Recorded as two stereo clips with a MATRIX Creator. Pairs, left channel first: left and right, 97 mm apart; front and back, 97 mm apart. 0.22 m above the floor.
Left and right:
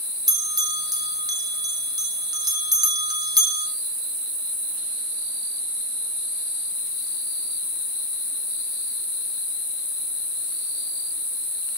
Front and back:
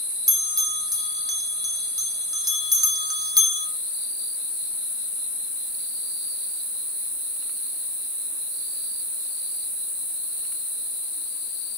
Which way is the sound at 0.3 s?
135° right.